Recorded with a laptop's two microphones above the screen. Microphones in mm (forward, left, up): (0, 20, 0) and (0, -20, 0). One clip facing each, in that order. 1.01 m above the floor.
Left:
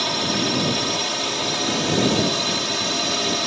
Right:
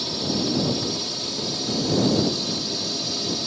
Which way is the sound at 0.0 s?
60° left (ahead or behind).